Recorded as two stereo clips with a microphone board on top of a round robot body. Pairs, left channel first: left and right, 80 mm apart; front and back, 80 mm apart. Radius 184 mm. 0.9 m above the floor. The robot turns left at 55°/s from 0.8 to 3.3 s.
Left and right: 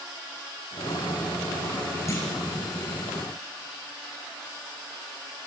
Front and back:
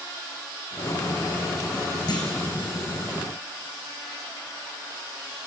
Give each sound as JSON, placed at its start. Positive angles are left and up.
{"t": 2.1, "sound": "a clunk", "azimuth_deg": 35, "distance_m": 3.5}